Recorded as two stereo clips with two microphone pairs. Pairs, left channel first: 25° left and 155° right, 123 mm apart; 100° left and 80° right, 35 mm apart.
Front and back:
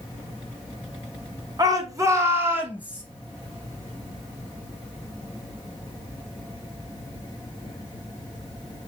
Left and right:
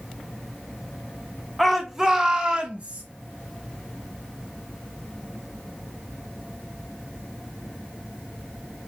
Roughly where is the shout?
Behind.